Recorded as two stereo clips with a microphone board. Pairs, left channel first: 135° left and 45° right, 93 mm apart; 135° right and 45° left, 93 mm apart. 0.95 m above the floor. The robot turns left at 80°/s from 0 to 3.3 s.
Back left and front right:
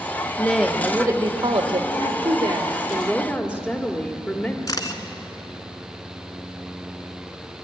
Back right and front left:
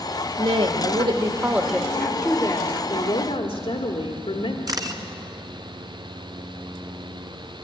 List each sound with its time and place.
0.4 s a woman speaking: 75° left, 1.3 m; by 1.9 s 45° right, 1.3 m
2.0 s a woman speaking: 25° right, 1.7 m; by 4.6 s 130° right, 1.7 m
4.7 s a camera shutter: 85° left, 1.9 m